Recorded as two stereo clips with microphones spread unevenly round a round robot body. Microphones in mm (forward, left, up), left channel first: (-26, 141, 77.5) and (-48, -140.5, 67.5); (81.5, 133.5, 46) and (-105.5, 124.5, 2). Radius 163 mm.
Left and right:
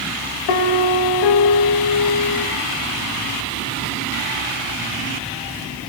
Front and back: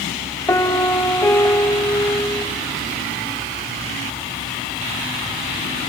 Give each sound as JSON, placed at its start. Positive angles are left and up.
{"t": 0.5, "sound": "a piano", "azimuth_deg": 85, "distance_m": 0.9}